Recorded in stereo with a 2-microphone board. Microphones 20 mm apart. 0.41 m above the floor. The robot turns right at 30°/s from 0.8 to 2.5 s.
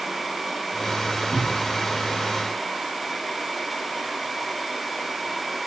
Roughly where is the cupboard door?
Right.